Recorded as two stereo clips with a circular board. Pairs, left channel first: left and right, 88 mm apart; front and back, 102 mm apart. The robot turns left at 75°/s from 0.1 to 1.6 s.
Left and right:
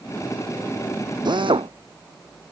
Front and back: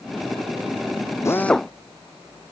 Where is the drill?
60° right; by 1.7 s 85° right.